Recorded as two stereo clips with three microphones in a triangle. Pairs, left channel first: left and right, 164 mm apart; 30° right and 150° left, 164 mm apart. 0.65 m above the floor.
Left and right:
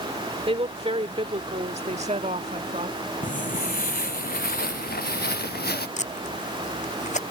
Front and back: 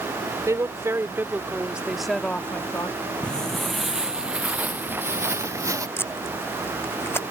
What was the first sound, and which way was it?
A woman speaking, 140° right.